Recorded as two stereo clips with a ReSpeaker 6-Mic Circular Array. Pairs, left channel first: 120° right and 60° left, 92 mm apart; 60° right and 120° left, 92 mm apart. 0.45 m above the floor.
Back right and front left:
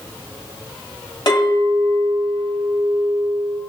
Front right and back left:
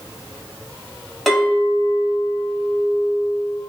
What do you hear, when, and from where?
1.3 s a clink: 150° right, 1.7 m